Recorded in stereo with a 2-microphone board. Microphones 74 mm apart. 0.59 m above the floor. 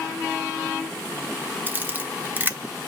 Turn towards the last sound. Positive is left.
turn(degrees=-25)  # may be behind; listen again after turning